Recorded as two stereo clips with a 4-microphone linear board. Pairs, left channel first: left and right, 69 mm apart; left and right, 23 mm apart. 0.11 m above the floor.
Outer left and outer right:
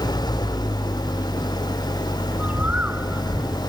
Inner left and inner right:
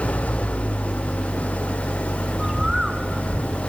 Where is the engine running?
80° left.